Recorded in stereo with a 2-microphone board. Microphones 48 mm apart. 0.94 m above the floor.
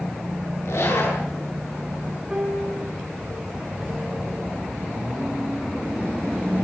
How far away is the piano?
About 5.5 m.